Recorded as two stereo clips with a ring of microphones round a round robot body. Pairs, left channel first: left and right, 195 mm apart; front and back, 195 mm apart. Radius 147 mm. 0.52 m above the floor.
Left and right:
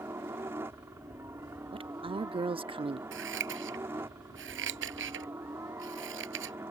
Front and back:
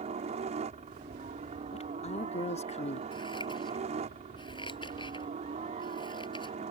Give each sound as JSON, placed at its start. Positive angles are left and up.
{"t": 0.0, "sound": "a helicopter", "azimuth_deg": -160}
{"t": 1.7, "sound": "a woman speaking", "azimuth_deg": -40}
{"t": 3.1, "sound": "scissors", "azimuth_deg": -75}